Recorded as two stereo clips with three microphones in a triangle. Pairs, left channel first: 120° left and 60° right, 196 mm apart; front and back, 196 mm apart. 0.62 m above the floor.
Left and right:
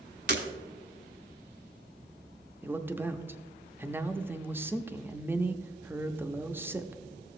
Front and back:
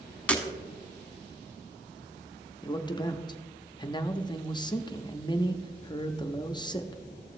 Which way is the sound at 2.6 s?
5° left.